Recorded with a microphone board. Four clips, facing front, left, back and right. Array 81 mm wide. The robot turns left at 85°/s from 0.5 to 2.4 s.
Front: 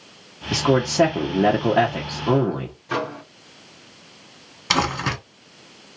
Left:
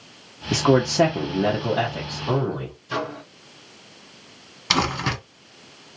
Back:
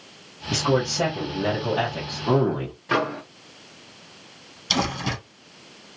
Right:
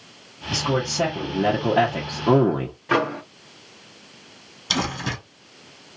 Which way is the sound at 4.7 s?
35° left.